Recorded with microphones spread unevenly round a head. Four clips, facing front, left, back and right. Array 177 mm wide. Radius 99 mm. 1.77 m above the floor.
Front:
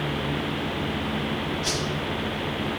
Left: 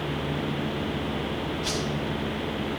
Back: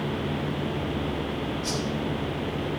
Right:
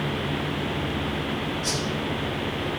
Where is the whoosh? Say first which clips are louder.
Right 1 dB, front 1 dB; 45° left, 4.5 m.